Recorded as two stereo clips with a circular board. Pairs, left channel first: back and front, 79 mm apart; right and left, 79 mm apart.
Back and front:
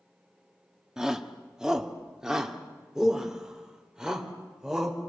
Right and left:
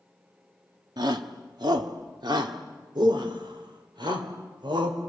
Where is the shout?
80° left, 1.8 m.